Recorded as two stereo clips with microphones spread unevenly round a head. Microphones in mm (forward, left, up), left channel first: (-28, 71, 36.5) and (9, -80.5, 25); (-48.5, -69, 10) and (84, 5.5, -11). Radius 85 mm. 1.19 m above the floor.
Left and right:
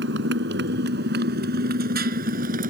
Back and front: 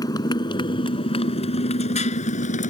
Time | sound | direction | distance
0.0 | a motorcycle | 85° right | ?